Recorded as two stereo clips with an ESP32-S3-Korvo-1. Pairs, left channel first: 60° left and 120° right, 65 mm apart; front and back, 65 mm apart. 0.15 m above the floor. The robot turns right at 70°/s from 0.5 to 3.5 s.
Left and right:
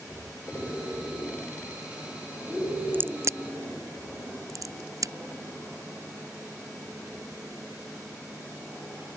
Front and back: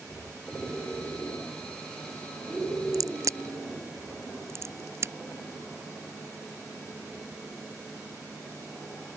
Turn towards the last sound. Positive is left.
turn(degrees=-140)